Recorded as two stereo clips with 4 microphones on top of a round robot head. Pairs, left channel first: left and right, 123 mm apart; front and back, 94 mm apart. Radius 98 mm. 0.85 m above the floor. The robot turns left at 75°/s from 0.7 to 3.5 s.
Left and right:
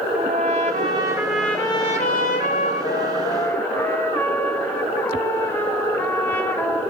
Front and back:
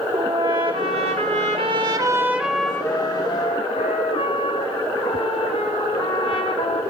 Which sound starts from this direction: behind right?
A trumpet, at 0.1 s.